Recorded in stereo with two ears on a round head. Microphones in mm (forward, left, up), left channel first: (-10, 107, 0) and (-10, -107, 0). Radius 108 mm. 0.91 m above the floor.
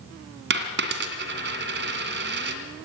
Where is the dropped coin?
45° right (ahead or behind), 1.9 m.